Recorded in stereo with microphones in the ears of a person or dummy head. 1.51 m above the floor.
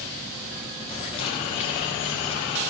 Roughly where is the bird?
Left.